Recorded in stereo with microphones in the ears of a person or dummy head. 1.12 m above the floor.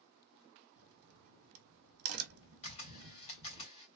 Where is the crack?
80° right, 0.8 m.